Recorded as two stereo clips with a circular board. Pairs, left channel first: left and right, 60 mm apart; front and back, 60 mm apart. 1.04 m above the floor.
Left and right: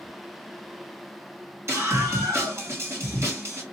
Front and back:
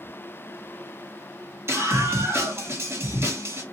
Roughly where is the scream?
Behind right.